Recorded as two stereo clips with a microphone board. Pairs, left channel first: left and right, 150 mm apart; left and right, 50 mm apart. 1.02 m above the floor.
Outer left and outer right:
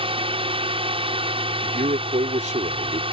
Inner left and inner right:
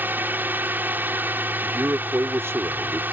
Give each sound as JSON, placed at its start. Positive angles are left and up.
{"t": 0.0, "sound": "a drone", "side_deg": -40}
{"t": 1.6, "sound": "a man speaking", "side_deg": -55}